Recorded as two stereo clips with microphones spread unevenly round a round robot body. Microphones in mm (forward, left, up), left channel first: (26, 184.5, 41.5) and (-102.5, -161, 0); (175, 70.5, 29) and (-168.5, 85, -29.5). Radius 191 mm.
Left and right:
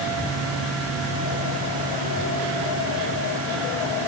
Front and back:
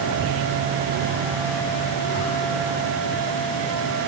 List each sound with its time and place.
Only background noise.